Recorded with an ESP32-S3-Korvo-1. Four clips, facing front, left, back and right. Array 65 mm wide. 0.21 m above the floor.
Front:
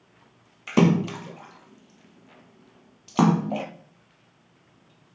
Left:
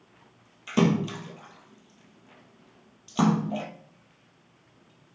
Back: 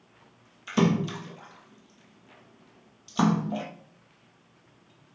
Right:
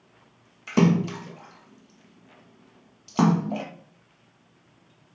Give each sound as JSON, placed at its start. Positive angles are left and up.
{"t": 0.7, "sound": "a splash", "azimuth_deg": -20, "distance_m": 1.3}